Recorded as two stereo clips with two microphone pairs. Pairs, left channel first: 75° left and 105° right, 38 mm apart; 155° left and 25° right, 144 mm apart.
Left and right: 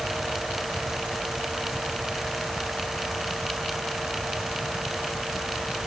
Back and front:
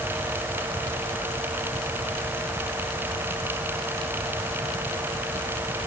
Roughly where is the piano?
I don't hear a piano.